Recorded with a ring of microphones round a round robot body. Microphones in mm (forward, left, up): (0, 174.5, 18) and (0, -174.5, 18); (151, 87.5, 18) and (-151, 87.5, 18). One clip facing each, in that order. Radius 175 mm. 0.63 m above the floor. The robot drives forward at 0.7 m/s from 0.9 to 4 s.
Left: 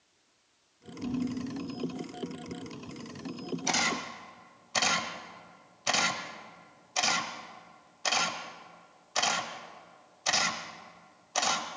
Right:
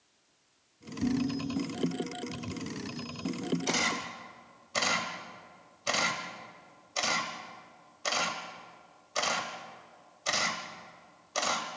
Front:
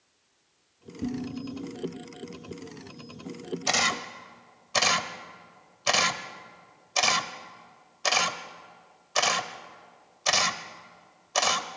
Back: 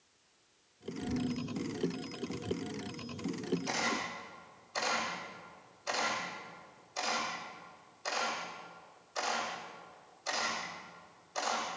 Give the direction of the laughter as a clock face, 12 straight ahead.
No laughter in this recording.